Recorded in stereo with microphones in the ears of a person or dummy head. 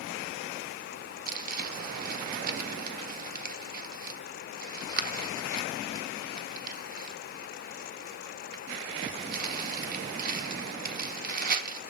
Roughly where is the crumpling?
Right.